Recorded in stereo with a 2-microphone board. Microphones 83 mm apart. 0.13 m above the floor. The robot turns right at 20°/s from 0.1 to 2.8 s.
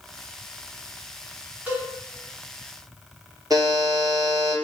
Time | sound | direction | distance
1.7 | a cowbell | 20° right (ahead or behind) | 1.0 m
3.5 | a buzzer | 50° right (ahead or behind) | 0.6 m